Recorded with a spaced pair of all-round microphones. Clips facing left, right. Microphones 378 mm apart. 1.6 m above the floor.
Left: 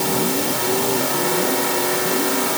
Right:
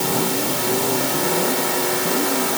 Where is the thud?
I don't hear a thud.